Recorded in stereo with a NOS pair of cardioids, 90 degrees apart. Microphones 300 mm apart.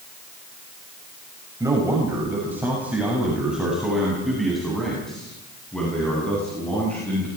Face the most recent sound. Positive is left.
turn(degrees=5)